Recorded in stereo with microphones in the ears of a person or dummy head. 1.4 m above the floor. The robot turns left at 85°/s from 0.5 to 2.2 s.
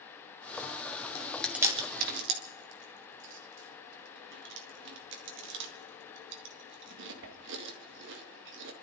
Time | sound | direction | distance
1.1 | chewing | 25° left (ahead or behind) | 1.9 m